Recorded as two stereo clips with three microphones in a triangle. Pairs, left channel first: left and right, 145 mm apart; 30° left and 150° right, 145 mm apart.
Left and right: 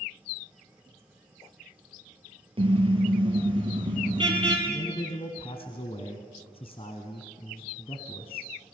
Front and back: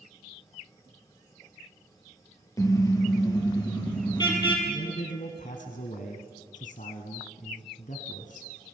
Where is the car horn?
40° right, 3 m; by 4.6 s 30° right, 4 m.